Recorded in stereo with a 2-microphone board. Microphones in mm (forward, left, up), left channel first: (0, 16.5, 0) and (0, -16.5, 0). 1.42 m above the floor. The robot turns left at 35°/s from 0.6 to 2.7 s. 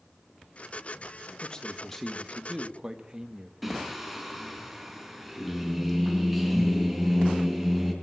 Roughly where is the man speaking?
Ahead left.